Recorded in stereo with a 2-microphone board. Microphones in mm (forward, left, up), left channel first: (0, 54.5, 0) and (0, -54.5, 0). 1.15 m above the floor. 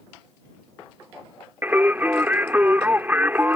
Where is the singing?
15° right (ahead or behind).